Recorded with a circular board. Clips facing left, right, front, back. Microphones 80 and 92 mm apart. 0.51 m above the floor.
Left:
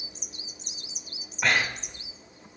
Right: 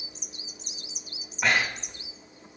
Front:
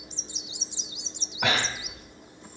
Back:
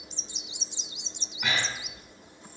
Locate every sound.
1.4 s breathing: straight ahead, 0.7 m